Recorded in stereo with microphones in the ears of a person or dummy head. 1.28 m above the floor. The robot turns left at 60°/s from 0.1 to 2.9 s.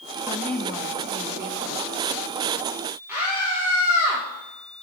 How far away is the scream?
About 1.6 m.